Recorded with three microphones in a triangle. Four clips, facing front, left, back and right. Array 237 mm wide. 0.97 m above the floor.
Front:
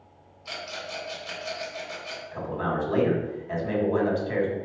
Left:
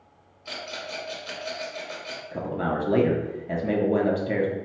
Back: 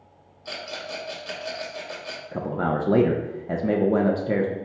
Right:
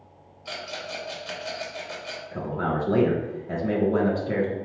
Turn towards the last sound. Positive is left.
turn(degrees=165)